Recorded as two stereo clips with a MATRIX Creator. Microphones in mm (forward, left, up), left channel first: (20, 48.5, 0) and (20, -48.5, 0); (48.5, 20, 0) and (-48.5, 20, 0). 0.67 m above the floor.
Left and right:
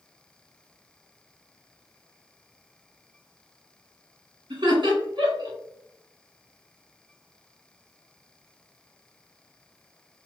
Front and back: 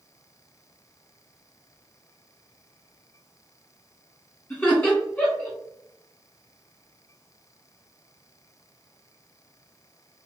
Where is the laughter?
75° right, 1.6 m.